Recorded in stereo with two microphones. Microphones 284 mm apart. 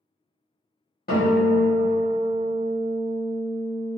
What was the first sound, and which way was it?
A guitar, 35° left (ahead or behind).